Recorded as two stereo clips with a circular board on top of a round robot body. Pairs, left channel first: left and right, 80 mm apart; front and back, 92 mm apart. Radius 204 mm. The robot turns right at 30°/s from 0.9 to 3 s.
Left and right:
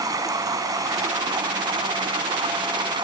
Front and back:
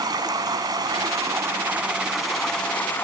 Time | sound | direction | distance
0.0 | running water | 135° right | ?